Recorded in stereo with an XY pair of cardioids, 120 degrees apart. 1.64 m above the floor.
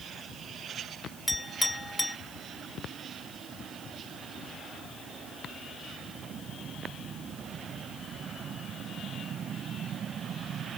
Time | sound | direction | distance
1.3 | a clink | 10° left | ?